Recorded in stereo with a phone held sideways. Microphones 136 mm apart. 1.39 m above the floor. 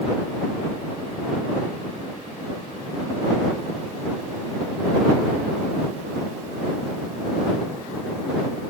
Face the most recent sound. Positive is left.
No sound to turn to.